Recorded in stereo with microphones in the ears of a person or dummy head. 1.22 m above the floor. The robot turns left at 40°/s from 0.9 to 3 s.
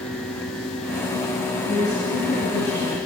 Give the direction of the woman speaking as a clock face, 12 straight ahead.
7 o'clock.